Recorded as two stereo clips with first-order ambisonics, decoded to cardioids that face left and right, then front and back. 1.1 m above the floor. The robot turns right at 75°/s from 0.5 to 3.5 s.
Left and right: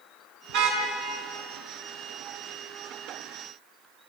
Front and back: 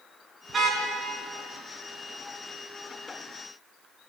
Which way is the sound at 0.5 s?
105° right.